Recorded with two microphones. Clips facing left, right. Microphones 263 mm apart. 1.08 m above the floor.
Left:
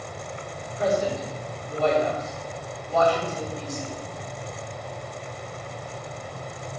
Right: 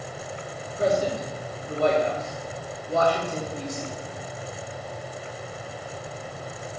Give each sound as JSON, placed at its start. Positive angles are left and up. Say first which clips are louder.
{"t": 0.7, "sound": "a man speaking", "louder": "right 1 dB", "side_deg": -45, "distance_m": 4.0}